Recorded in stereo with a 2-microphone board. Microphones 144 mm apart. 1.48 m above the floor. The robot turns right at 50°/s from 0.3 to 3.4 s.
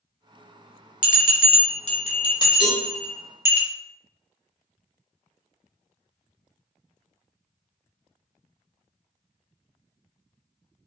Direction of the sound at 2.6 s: 5° right (ahead or behind).